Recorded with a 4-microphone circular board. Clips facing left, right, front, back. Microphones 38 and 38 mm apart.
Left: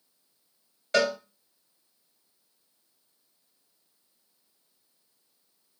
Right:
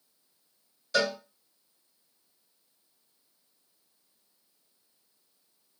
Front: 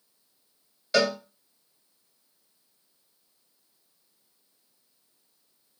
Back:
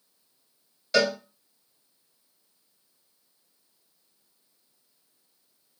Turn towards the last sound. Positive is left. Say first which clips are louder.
# left 3 dB, even
turn(degrees=75)